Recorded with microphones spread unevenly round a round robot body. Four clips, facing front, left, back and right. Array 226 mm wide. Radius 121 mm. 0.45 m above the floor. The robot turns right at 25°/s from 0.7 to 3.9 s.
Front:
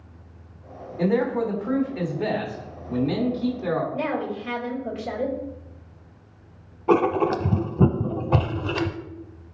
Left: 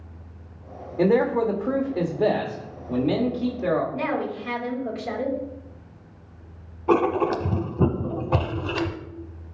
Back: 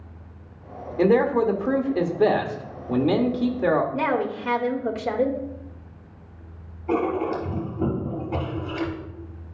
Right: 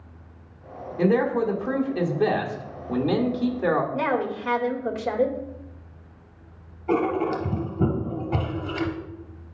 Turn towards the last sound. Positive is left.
turn(degrees=10)